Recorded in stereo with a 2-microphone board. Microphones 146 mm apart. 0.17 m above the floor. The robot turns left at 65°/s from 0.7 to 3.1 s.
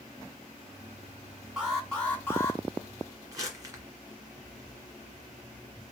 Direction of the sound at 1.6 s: 5° right (ahead or behind).